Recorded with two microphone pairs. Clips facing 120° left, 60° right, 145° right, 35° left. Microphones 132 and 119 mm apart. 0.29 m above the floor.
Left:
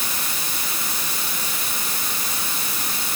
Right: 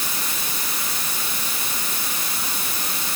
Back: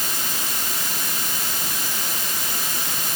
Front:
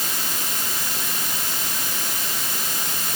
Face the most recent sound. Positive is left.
No sound to turn to.